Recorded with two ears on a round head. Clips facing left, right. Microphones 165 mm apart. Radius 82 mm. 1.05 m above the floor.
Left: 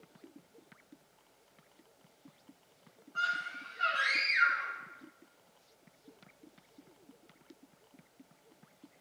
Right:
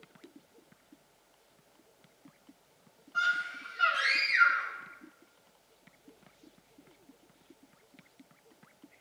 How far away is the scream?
About 5 m.